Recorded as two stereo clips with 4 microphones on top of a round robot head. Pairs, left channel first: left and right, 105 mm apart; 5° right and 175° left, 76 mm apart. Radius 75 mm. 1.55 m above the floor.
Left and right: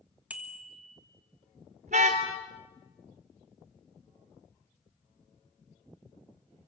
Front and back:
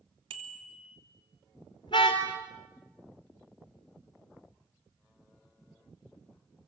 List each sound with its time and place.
0.3 s a bicycle bell: 170° right, 2.5 m
1.9 s a car horn: 55° right, 3 m